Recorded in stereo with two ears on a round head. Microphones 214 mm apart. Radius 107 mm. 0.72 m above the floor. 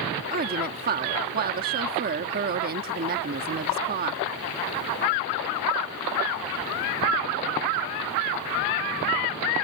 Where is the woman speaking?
40° right (ahead or behind).